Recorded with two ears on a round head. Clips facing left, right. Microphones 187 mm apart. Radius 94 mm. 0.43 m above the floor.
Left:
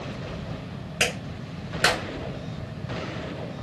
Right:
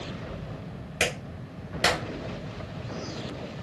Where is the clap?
10° left (ahead or behind), 1.6 m.